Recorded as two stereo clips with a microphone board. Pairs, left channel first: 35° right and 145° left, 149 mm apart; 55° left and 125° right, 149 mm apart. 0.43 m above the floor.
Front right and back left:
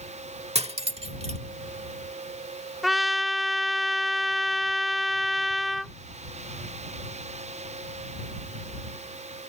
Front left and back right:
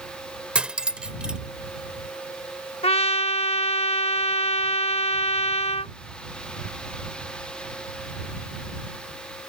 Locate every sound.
0.6 s cutlery clinking: 155° left
2.8 s a trumpet: 55° left